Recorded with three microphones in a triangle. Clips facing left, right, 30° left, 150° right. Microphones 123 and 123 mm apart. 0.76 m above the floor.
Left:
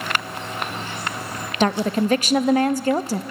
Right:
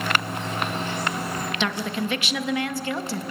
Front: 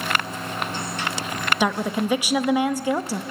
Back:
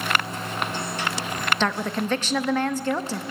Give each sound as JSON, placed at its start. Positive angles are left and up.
{"t": 1.6, "sound": "a woman speaking", "azimuth_deg": 105, "distance_m": 0.6}